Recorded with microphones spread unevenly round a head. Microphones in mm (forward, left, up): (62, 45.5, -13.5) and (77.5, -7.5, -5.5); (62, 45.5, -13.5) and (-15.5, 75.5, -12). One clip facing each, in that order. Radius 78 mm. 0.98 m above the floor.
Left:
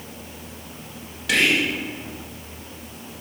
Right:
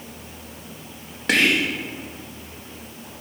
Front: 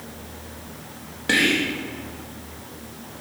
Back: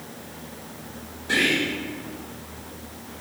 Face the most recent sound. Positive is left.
turn(degrees=-25)